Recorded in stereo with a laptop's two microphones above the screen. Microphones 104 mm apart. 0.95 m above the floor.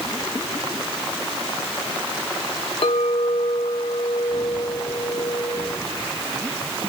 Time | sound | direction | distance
2.8 | a clink | 65° left (ahead or behind) | 1.1 m